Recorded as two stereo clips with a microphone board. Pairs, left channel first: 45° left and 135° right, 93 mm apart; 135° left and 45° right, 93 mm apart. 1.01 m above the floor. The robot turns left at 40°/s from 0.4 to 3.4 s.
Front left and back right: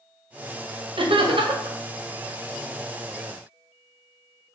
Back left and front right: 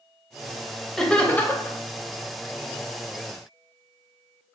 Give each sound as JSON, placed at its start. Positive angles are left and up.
{"t": 1.0, "sound": "laughter", "azimuth_deg": -140, "distance_m": 0.7}